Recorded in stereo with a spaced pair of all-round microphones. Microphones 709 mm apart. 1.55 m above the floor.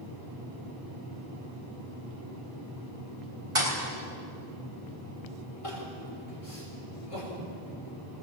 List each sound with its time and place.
3.5 s a thud: 50° right (ahead or behind), 4 m
5.6 s crying: 50° left (ahead or behind), 5.5 m